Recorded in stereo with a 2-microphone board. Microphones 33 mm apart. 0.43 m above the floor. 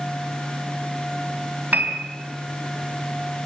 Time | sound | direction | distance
1.7 | a piano | 65° right (ahead or behind) | 3.5 m